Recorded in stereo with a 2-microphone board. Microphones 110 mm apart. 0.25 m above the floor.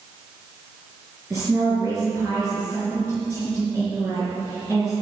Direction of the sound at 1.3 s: 25° right (ahead or behind).